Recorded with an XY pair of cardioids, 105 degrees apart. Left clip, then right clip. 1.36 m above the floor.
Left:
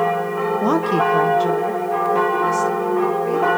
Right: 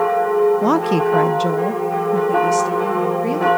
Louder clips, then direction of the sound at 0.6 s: Right 1 dB; 5° right.